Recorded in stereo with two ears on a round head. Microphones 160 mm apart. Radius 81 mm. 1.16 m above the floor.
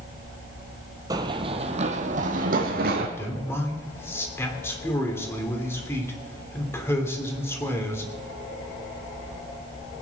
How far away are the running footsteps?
About 1.3 m.